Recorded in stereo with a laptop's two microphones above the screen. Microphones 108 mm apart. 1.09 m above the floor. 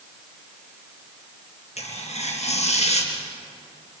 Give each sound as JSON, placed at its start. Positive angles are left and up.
{"t": 1.8, "sound": "tearing paper", "side_deg": 80, "distance_m": 3.5}